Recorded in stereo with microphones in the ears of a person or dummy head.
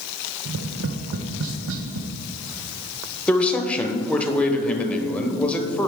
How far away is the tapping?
About 0.5 m.